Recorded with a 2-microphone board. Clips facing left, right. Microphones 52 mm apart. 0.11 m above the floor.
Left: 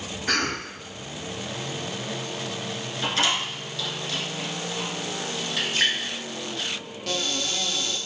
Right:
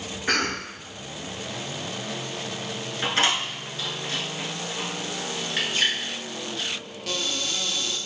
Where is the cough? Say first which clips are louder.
Right 1 dB; 20° right (ahead or behind), 1.7 m.